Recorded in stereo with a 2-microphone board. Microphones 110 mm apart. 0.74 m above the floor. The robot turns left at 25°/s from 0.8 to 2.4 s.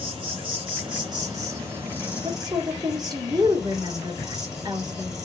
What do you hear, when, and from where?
0.0 s an insect: 135° right, 6 m; by 5.3 s 175° right, 6 m
2.2 s a woman speaking: 40° right (ahead or behind), 1.6 m; by 5.2 s 35° right (ahead or behind), 1.6 m